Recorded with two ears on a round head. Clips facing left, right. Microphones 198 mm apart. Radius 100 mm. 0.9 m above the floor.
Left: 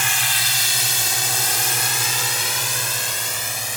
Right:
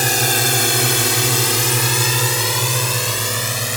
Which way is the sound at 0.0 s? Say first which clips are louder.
Right 11 dB; 35° right (ahead or behind).